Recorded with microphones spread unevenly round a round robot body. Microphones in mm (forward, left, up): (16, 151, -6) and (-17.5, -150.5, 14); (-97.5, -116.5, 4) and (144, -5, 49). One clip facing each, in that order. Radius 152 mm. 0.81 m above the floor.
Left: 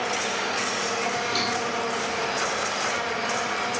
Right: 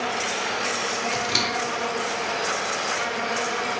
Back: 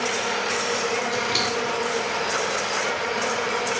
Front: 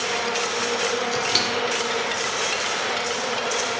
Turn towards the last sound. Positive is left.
turn(degrees=-45)